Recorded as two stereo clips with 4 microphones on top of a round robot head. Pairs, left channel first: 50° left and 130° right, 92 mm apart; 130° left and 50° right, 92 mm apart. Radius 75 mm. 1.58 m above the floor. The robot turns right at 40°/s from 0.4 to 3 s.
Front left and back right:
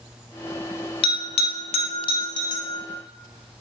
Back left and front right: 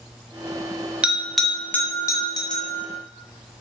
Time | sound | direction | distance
1.0 | a bell | 30° left | 0.7 m